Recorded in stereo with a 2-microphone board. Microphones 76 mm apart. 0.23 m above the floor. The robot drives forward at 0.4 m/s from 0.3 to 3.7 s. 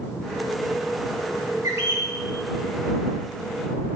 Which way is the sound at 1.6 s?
35° right (ahead or behind).